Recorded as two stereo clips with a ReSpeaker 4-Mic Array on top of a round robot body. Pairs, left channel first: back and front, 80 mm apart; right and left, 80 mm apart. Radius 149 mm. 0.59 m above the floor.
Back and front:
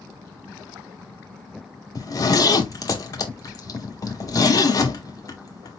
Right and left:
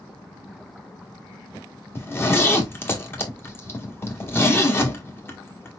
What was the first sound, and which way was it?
A zipper, 145° right.